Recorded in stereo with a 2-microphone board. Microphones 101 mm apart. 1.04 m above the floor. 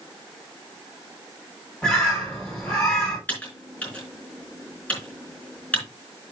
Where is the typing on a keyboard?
15° left (ahead or behind), 4 m.